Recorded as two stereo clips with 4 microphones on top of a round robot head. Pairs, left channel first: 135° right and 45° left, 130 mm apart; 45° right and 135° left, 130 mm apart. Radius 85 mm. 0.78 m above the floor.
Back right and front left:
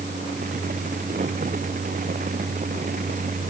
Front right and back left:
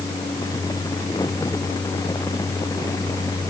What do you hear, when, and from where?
Only background noise.